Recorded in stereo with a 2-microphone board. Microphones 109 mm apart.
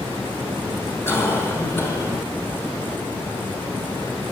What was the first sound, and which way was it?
A cough, 25° left (ahead or behind).